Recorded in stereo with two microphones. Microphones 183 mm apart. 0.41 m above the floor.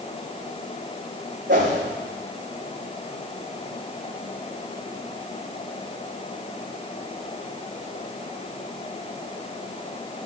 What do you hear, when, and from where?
1.5 s a whoosh: 75° right (ahead or behind), 5 m